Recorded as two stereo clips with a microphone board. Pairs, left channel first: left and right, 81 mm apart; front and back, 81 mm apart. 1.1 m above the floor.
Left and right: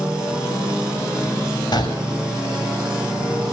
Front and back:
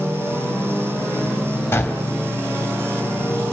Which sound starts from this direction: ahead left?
A gunshot, at 1.7 s.